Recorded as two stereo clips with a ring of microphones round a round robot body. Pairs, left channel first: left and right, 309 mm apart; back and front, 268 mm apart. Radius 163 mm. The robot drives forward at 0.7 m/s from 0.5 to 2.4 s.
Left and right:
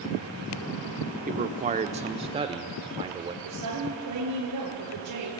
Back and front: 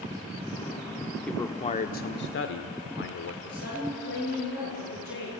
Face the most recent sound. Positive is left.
turn(degrees=-125)